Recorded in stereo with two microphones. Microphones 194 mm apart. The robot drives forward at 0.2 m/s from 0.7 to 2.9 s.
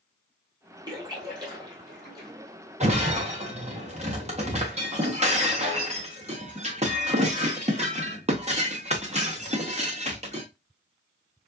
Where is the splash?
25° right (ahead or behind), 3 m; by 2.3 s 20° right (ahead or behind), 3 m.